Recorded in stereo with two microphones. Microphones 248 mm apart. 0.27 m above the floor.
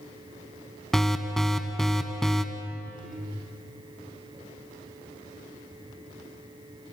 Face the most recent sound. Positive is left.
turn(degrees=0)  # may be behind; listen again after turning